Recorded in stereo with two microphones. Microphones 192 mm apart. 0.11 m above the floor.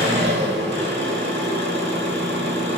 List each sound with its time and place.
0.0 s an engine running: 75° right (ahead or behind), 1.1 m